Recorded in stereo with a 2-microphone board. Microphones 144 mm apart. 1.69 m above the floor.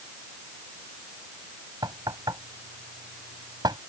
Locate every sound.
1.8 s knocking: 30° right (ahead or behind)